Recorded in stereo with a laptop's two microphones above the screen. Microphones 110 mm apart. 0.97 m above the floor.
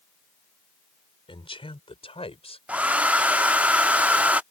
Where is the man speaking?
55° left (ahead or behind); by 2.6 s 65° left (ahead or behind).